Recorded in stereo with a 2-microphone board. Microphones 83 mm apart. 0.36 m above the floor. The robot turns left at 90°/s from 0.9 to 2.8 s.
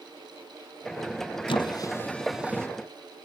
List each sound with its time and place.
1.5 s a squeak: 70° left (ahead or behind), 1.4 m; by 2.7 s 30° right (ahead or behind), 1.4 m